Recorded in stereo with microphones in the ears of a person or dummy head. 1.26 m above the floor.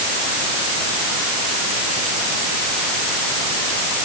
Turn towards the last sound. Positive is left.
No sound to turn to.